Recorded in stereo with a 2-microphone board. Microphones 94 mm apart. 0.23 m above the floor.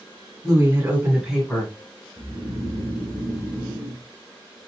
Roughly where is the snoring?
Left.